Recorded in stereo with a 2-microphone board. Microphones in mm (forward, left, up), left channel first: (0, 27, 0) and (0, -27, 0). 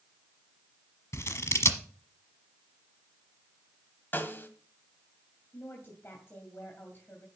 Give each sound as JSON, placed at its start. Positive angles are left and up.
{"t": 1.1, "sound": "scissors", "side_deg": 60, "distance_m": 1.2}
{"t": 4.1, "sound": "a snare drum", "side_deg": 40, "distance_m": 1.4}
{"t": 5.5, "sound": "a woman speaking", "side_deg": 40, "distance_m": 2.5}